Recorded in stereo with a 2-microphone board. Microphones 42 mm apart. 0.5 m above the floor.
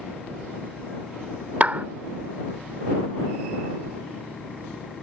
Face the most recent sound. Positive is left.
turn(degrees=-40)  # may be behind; listen again after turning